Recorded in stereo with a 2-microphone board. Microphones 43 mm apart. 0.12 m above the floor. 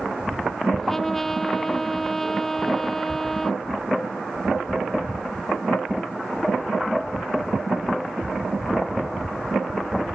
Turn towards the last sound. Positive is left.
turn(degrees=10)  # may be behind; listen again after turning